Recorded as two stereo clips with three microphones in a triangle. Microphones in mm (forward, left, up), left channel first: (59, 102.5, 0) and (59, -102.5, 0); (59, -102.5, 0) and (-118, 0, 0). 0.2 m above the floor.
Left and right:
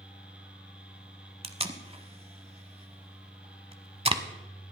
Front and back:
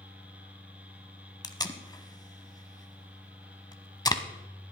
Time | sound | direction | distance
1.4 | tape being pulled | 80° right | 1.0 m